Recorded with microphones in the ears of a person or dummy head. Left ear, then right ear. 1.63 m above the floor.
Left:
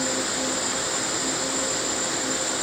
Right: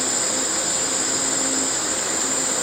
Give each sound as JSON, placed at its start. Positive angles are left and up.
{"t": 0.0, "sound": "an insect", "side_deg": -50, "distance_m": 3.5}